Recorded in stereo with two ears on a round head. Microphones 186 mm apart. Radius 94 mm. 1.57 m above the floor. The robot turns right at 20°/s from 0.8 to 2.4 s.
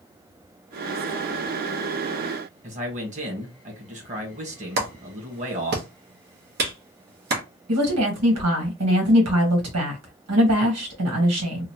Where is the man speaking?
40° right (ahead or behind), 1.6 m.